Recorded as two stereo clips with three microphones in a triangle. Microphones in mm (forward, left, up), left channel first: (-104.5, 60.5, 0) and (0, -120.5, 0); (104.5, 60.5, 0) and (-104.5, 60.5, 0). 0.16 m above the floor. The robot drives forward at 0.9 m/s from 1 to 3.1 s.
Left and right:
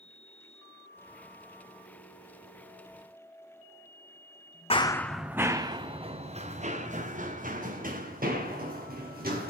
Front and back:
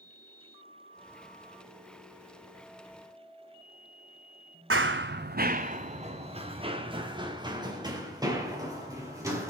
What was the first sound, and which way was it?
Running footsteps, 175° right.